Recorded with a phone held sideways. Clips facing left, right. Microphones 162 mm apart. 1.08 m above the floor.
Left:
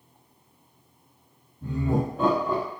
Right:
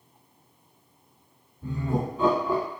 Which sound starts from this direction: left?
Laughter, at 1.6 s.